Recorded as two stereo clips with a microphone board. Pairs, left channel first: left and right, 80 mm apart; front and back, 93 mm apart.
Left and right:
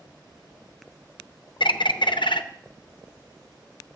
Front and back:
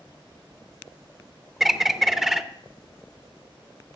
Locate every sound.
1.6 s a bird: 95° left, 0.6 m